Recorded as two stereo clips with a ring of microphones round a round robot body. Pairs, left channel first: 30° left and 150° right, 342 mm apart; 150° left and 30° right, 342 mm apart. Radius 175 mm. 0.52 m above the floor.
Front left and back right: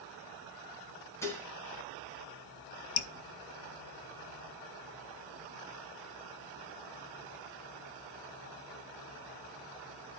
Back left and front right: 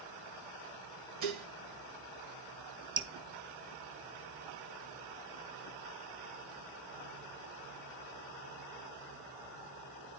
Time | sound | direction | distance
1.2 | dishes clattering | 50° right | 2.0 m
3.0 | dripping | 40° left | 0.7 m